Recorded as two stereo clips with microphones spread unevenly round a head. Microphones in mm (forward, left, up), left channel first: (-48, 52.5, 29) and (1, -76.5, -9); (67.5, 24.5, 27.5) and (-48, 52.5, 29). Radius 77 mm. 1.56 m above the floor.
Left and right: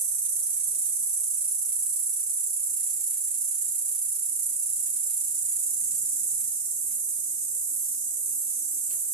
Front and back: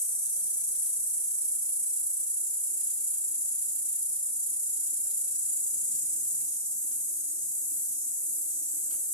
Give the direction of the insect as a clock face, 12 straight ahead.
3 o'clock.